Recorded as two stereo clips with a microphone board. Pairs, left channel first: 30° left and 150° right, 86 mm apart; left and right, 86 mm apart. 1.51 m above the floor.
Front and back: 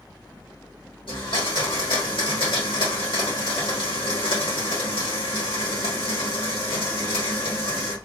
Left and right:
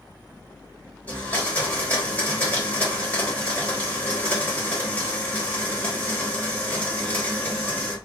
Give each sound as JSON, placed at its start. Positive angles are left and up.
{"t": 1.1, "sound": "a blender", "azimuth_deg": 15, "distance_m": 1.5}